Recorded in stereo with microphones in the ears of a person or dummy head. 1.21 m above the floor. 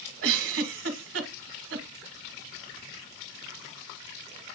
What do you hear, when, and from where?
0.2 s a giggle: 65° right (ahead or behind), 1.2 m